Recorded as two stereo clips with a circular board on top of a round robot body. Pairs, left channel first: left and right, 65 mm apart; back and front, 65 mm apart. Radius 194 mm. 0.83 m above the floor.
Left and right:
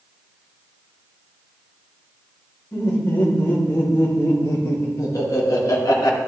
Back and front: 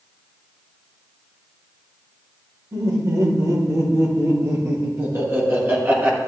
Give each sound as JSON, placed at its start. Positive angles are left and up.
{"t": 2.7, "sound": "laughter", "azimuth_deg": 30, "distance_m": 5.0}